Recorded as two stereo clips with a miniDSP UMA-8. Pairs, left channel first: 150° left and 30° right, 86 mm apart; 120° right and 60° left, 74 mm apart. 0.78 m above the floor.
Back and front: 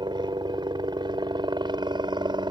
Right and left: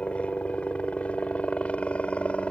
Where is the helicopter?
50° right.